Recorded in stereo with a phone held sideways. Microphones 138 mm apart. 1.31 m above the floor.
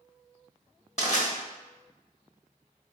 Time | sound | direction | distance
1.0 | crushing | 50° left (ahead or behind) | 1.1 m